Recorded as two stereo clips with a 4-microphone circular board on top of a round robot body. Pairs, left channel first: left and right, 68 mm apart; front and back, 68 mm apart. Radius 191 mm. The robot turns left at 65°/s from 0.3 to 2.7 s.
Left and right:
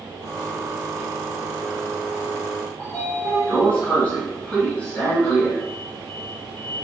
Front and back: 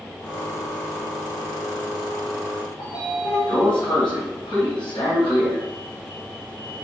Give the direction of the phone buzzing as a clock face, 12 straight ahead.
I don't hear a phone buzzing.